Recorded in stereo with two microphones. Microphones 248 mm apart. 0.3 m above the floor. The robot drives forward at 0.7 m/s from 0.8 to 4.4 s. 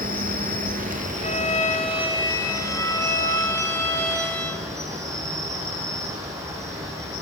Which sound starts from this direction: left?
A violin, at 1.2 s.